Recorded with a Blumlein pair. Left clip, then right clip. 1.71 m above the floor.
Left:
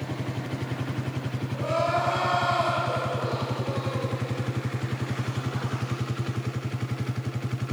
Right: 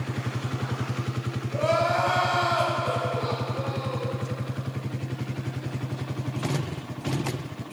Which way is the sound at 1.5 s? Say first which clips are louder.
Right 2 dB; 55° right.